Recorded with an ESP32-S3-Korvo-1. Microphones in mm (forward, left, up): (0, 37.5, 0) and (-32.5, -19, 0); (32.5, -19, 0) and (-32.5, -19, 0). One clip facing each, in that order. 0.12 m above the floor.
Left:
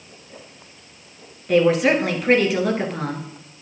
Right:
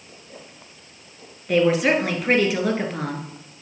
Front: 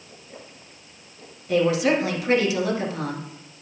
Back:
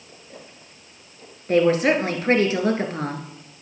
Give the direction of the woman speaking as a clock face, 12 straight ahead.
7 o'clock.